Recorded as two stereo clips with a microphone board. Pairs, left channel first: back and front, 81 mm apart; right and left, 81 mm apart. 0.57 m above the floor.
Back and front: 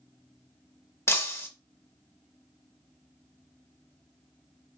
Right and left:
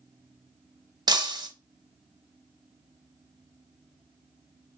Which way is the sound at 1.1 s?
120° left.